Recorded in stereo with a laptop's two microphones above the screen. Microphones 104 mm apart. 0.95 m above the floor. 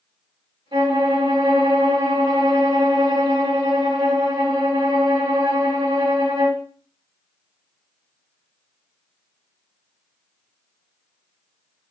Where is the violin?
45° right (ahead or behind), 1.3 m.